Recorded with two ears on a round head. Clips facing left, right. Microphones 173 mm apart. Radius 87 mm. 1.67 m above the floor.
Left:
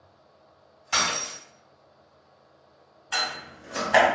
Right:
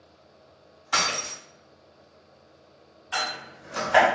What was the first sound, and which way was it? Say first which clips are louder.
Breaking glass: even; 30° left (ahead or behind).